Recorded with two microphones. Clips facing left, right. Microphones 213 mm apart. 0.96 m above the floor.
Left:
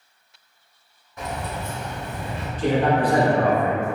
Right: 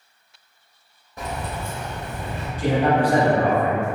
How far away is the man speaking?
About 1.1 m.